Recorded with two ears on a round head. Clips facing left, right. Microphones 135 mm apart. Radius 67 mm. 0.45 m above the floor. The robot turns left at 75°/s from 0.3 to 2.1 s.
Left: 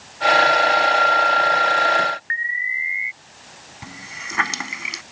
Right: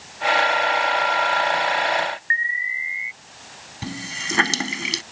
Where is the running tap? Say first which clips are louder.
Right 7 dB; 40° right (ahead or behind).